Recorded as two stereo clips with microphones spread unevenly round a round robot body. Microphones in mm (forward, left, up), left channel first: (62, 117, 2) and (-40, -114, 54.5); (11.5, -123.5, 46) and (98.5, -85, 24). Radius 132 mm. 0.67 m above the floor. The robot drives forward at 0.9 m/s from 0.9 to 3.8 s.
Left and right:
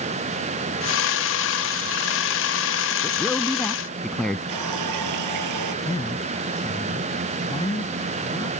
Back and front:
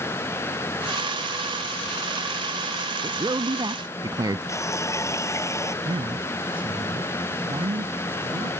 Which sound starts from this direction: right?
A running tap, at 4.5 s.